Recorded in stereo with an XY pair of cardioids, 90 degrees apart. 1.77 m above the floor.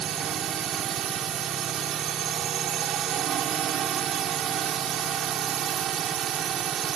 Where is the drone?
70° right.